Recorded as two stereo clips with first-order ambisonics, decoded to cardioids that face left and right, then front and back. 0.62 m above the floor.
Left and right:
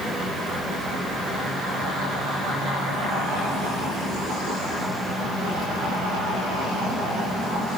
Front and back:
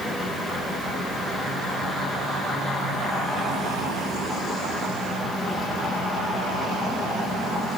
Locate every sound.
Only background noise.